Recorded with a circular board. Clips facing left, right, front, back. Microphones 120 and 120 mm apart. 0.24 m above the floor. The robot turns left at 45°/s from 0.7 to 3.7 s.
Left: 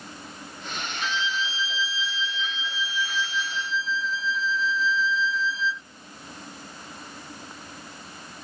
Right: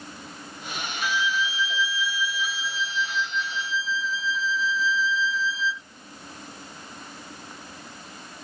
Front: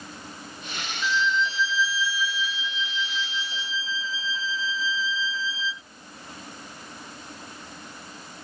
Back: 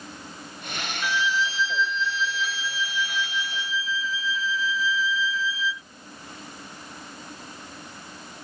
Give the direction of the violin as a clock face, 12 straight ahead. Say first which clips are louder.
Right 3 dB, front 1 dB; 8 o'clock.